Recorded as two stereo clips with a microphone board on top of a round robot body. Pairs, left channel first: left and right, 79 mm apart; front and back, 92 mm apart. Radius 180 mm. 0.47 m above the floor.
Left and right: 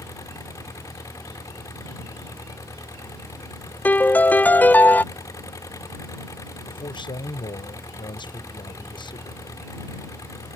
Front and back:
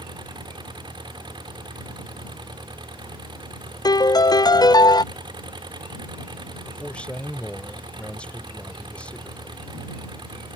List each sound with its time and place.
0.0 s an engine running: 140° left
3.9 s a piano: 25° left
6.7 s a man speaking: 80° left